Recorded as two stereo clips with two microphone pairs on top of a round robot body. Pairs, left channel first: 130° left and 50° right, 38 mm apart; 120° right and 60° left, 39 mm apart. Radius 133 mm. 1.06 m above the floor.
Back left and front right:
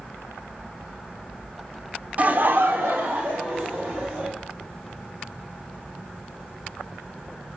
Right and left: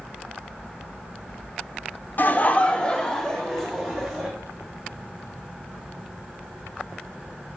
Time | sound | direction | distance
2.2 | laughter | 100° right | 0.6 m